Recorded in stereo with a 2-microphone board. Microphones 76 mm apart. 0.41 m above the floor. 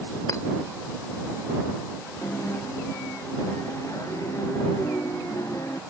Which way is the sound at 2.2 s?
40° left (ahead or behind).